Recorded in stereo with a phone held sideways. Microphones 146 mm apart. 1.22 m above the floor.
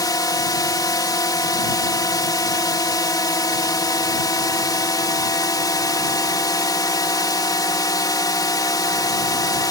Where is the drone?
25° left (ahead or behind).